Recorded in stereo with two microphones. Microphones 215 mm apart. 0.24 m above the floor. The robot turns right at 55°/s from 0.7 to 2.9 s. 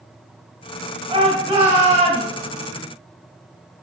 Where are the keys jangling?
No keys jangling in this recording.